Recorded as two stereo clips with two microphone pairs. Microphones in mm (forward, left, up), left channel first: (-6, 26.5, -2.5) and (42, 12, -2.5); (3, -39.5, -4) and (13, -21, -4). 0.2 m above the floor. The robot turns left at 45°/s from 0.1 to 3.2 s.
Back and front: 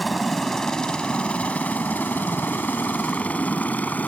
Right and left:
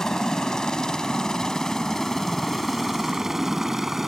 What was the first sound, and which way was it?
A helicopter, 105° right.